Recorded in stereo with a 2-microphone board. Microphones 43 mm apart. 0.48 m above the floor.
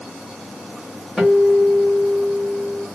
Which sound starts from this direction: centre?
A guitar, at 1.2 s.